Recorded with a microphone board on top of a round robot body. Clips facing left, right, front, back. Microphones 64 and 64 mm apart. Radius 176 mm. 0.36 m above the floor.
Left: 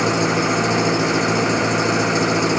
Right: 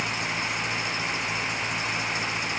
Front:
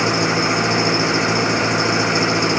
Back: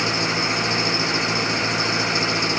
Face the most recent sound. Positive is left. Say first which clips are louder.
# left 11 dB, front 5 dB
turn(degrees=70)